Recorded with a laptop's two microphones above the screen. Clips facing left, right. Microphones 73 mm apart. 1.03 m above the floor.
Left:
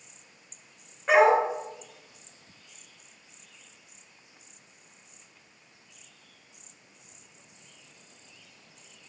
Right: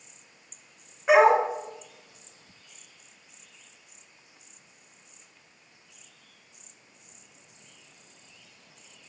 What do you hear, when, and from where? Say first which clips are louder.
1.1 s a dog barking: right 1 dB; 5° right (ahead or behind), 1.2 m